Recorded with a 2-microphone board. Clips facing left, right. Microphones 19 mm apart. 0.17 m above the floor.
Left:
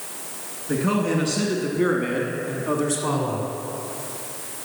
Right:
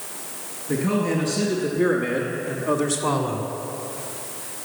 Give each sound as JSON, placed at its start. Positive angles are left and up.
{"t": 0.7, "sound": "a man speaking", "side_deg": 40, "distance_m": 1.6}